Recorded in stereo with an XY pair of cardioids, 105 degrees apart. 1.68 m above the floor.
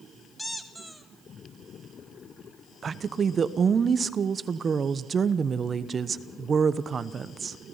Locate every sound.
0.4 s a squeak: straight ahead, 1.7 m
2.8 s a woman speaking: 40° right, 1.0 m